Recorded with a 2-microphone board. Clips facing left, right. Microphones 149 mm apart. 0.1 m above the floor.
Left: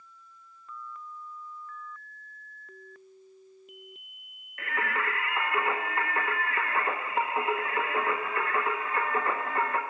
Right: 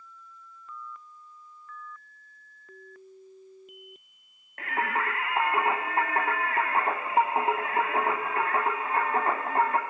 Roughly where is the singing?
Right.